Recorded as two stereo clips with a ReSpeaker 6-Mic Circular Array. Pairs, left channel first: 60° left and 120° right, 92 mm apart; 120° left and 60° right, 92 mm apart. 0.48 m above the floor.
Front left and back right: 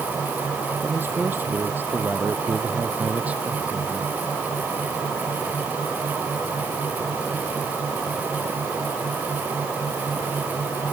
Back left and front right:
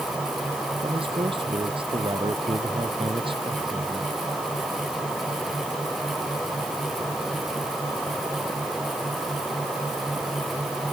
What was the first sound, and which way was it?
A man speaking, 55° right.